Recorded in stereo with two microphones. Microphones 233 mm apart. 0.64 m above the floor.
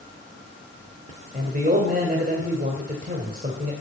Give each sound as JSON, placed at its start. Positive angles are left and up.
{"t": 1.3, "sound": "a man speaking", "side_deg": -35, "distance_m": 2.0}